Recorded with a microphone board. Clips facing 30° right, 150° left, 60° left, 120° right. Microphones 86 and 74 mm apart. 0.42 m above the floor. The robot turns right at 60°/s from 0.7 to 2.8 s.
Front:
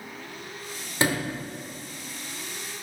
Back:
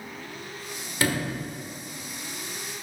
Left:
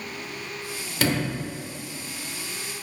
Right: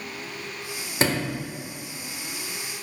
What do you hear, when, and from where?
1.0 s a sliding door: 80° right, 1.2 m; by 1.4 s 55° right, 1.2 m